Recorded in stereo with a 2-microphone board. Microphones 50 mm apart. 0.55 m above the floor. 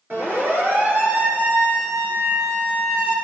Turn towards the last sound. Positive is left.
turn(degrees=-25)  # may be behind; listen again after turning